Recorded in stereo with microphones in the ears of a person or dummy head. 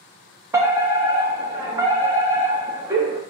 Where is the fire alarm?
10° right (ahead or behind), 0.9 m.